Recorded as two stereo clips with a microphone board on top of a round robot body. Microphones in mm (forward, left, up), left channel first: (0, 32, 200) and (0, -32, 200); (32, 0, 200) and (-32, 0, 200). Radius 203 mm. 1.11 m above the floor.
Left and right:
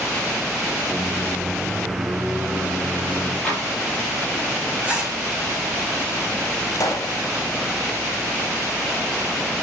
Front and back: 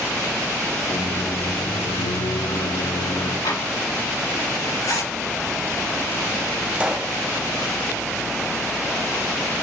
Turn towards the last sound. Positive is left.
turn(degrees=105)